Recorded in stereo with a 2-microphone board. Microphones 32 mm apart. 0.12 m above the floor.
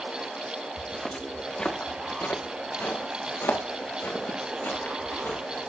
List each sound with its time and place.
0.8 s footsteps: 5° right (ahead or behind), 1.5 m; by 5.7 s 85° left, 4.5 m